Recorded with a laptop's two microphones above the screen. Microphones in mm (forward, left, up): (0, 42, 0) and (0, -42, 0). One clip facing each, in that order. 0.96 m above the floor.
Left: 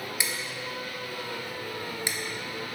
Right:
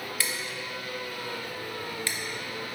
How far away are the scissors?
About 0.7 m.